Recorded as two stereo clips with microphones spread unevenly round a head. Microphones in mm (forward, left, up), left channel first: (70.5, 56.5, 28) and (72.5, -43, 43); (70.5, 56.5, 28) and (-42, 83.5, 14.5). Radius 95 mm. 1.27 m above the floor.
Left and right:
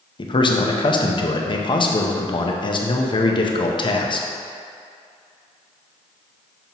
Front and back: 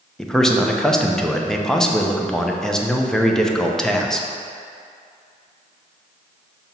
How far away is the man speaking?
About 0.8 m.